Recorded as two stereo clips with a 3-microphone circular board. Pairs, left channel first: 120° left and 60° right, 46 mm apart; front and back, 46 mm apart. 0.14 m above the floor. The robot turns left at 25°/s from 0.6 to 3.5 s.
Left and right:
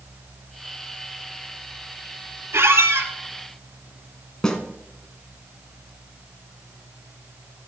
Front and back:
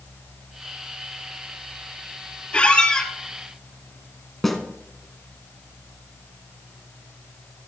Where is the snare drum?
80° left, 1.5 m.